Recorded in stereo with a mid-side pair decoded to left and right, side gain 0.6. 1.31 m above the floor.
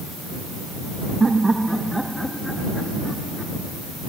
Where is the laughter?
20° right; by 3.5 s 20° left.